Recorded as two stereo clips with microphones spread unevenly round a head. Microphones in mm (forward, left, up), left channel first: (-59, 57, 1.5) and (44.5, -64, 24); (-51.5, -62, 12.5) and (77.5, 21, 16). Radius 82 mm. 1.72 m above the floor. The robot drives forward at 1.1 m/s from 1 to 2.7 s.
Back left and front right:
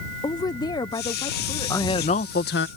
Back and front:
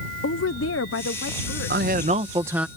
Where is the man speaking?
55° left; by 2.7 s 115° left.